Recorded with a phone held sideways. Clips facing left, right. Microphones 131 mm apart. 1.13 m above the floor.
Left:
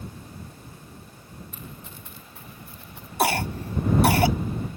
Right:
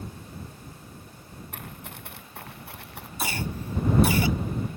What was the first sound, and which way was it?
Running footsteps, 65° right (ahead or behind).